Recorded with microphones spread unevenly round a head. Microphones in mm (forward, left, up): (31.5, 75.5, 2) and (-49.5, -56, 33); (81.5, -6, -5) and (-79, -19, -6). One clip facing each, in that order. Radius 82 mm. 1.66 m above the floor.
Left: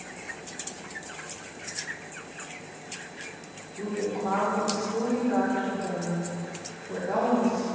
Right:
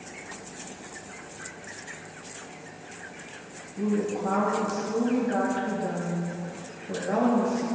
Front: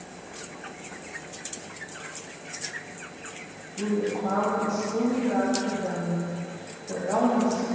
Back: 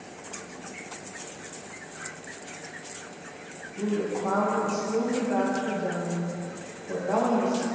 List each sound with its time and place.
3.8 s a woman speaking: 80° right, 4 m